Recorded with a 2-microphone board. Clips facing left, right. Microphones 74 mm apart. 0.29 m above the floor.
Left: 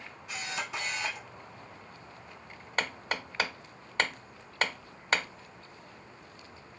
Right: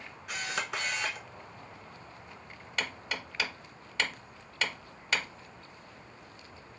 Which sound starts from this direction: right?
A camera shutter, at 0.3 s.